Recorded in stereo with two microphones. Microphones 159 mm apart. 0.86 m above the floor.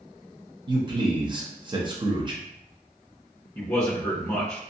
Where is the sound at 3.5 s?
15° left (ahead or behind), 0.9 m.